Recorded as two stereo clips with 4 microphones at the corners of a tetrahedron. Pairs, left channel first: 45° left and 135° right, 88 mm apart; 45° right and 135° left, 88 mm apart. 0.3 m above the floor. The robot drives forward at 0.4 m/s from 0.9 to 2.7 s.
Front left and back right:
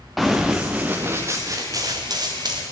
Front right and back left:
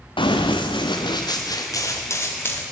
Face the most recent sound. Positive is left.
turn(degrees=-110)